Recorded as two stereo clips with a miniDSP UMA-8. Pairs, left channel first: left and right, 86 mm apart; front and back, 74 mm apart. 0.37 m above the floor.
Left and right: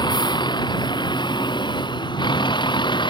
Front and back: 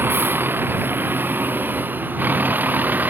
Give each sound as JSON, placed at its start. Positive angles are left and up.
{"t": 0.0, "sound": "a vehicle", "azimuth_deg": 120}